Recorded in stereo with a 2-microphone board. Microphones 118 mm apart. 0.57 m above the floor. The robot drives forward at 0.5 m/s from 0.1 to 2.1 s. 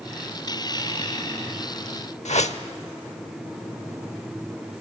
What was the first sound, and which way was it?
A whoosh, 75° left (ahead or behind).